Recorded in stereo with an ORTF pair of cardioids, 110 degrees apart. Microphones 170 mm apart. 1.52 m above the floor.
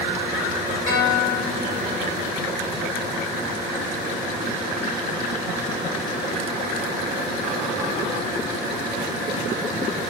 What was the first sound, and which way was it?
A guitar, 55° left.